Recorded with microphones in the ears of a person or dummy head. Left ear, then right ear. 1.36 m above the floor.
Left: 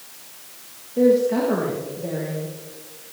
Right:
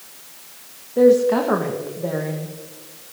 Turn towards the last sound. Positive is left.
turn(degrees=-45)  # may be behind; listen again after turning